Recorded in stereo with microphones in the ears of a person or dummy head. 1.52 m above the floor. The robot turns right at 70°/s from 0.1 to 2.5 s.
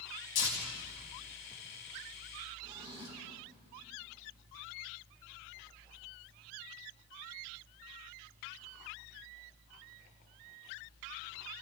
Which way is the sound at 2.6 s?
25° right (ahead or behind).